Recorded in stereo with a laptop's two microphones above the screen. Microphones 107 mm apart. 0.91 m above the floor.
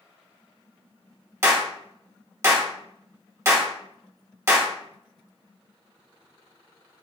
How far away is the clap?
About 0.8 m.